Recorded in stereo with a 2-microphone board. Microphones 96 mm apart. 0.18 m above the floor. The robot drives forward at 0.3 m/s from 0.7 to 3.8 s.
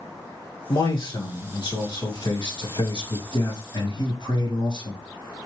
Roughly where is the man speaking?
Left.